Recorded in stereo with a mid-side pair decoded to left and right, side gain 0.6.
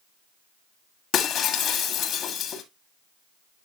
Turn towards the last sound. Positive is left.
turn(degrees=50)